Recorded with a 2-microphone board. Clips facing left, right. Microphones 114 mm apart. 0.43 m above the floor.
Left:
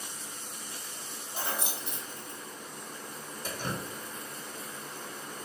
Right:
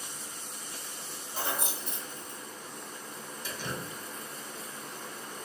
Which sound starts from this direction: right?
Keys jangling, at 1.3 s.